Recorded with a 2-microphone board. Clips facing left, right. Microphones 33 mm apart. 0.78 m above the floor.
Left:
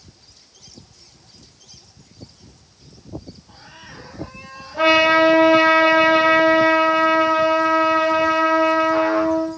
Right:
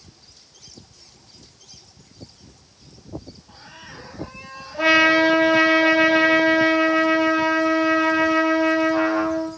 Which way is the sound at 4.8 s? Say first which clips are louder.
Left 2 dB; 60° left (ahead or behind).